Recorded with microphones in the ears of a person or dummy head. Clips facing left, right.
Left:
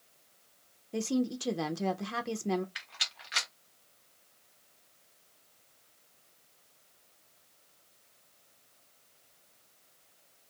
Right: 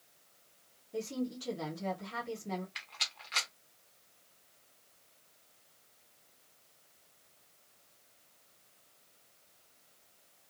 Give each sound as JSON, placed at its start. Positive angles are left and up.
{"t": 0.9, "sound": "a woman speaking", "side_deg": 70, "distance_m": 0.5}
{"t": 2.8, "sound": "a rattle", "side_deg": 10, "distance_m": 0.7}